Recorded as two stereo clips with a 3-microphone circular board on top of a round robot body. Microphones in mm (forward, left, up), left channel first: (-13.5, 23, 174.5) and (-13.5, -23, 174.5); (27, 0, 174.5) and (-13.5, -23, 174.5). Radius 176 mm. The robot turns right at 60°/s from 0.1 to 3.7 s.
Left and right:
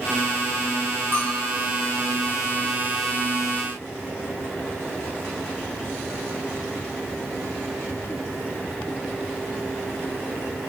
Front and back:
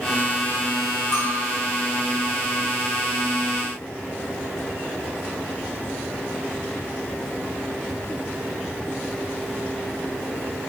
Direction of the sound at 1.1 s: 45° left.